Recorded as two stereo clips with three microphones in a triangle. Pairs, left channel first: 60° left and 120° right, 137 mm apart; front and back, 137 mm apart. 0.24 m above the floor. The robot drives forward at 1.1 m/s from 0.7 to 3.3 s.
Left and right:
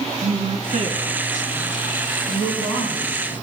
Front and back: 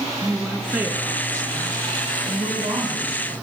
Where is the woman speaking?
95° right, 2.5 m; by 3.3 s 145° right, 4 m.